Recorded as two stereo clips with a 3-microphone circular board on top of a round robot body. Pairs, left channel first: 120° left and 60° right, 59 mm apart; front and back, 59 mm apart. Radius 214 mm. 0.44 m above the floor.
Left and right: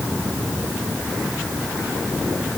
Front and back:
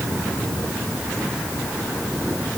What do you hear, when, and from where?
Only background noise.